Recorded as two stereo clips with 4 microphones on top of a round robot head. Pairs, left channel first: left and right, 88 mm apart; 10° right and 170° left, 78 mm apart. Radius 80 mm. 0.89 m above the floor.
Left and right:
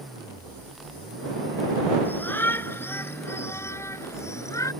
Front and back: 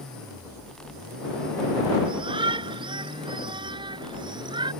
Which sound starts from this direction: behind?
A shout, at 2.0 s.